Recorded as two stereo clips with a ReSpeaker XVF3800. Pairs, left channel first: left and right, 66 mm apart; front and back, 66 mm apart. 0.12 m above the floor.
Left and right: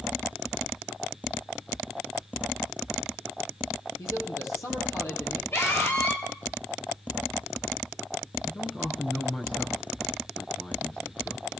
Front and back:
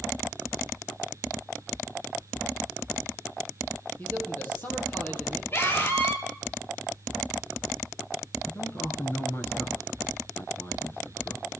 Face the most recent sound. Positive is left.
turn(degrees=25)